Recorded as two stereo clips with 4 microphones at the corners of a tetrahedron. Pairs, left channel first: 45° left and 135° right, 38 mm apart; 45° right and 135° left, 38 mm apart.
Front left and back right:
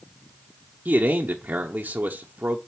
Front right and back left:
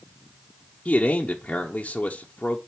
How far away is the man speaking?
About 0.8 m.